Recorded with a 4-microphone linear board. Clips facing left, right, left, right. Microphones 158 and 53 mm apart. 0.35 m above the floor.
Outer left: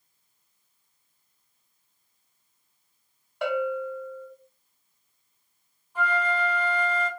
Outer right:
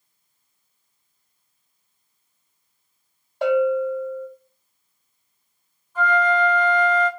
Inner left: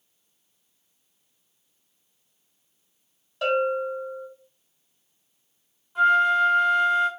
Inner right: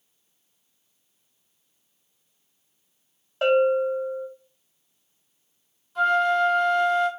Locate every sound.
3.4 s a bell: 35° right (ahead or behind), 1.7 m
6.0 s a flute: 10° left (ahead or behind), 1.4 m